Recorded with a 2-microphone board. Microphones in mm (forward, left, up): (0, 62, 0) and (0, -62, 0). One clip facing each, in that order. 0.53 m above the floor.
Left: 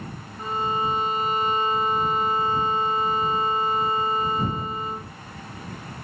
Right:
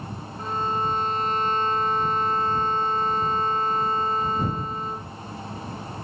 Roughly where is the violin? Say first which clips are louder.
Left 1 dB; centre.